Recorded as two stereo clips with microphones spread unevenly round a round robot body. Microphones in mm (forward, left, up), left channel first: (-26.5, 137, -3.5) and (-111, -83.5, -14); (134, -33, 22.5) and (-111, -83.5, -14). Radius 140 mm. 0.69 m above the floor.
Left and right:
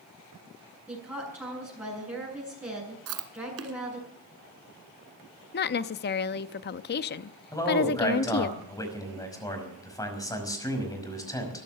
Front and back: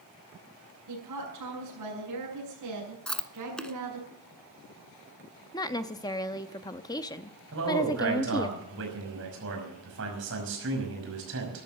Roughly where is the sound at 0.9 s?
Behind.